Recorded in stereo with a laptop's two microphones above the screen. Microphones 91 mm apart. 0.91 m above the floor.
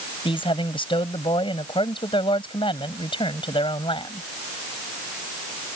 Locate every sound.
0.2 s a man speaking: 75° left (ahead or behind)